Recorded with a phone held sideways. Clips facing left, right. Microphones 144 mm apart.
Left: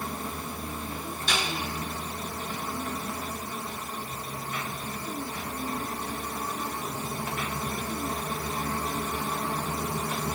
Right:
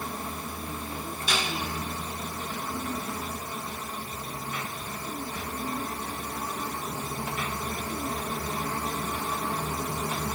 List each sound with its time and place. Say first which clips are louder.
1.3 s a snare drum: even; 5° right (ahead or behind), 5.5 m